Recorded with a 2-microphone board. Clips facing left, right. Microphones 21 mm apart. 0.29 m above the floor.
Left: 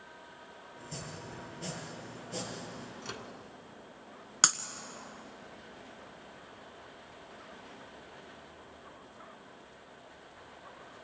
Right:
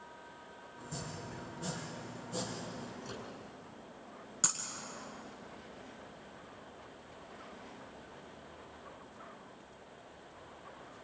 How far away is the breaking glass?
About 1.5 m.